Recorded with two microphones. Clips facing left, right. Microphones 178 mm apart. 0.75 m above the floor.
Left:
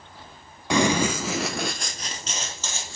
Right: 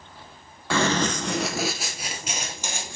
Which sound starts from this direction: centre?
Running footsteps, at 0.7 s.